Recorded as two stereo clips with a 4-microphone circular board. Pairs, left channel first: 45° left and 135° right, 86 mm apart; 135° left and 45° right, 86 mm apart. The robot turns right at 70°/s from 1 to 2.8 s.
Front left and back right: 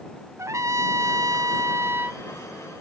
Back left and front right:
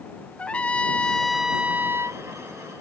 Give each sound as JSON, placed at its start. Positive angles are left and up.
{"t": 0.4, "sound": "a trumpet", "azimuth_deg": -160}